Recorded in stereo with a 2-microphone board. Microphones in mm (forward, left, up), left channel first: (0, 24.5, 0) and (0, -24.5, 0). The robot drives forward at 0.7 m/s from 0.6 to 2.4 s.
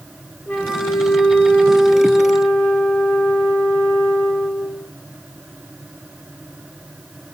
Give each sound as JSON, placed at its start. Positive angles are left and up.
{"t": 0.5, "sound": "a flute", "side_deg": 35, "distance_m": 1.4}